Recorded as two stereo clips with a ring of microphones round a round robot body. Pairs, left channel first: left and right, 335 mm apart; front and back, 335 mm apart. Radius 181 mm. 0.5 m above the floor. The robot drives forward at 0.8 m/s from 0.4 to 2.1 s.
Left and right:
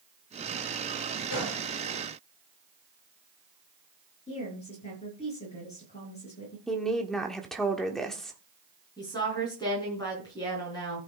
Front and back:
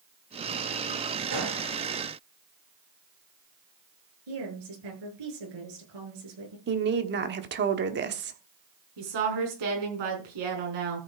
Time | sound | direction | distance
1.3 | a gunshot | 145° left | 6 m
4.3 | a woman speaking | 165° left | 7 m
6.7 | a woman speaking | straight behind | 1.2 m
9.0 | a woman speaking | 170° left | 5.5 m